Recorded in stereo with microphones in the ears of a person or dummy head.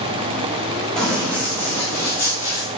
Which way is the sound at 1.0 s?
5° left (ahead or behind).